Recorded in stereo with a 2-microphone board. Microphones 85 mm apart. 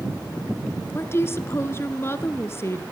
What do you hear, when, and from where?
0.9 s a woman speaking: 30° left (ahead or behind), 1.4 m